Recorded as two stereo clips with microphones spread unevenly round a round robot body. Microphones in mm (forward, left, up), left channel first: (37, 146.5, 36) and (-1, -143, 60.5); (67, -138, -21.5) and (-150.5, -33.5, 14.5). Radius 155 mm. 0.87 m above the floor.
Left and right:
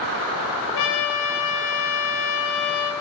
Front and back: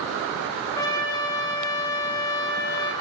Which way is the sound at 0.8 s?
55° left.